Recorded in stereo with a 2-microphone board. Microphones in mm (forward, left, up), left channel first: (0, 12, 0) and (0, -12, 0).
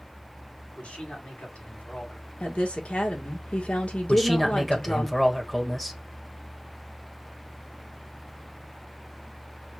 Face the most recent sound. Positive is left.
turn(degrees=5)  # may be behind; listen again after turning